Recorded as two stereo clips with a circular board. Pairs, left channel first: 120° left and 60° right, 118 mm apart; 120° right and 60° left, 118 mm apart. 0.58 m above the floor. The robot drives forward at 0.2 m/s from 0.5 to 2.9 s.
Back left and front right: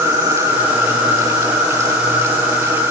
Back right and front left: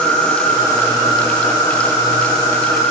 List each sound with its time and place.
0.0 s an insect: 90° right, 1.1 m; by 2.9 s 120° right, 1.2 m